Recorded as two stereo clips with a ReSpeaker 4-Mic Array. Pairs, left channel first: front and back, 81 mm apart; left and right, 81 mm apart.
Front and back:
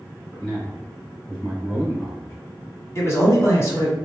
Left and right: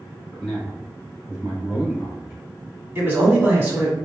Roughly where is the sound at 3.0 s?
Ahead right.